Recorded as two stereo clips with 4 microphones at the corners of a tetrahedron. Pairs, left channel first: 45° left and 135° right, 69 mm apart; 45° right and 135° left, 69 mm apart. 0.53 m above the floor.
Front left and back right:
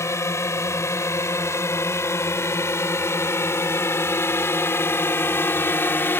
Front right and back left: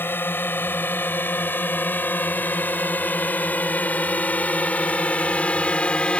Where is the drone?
5° left; by 6.2 s 15° left.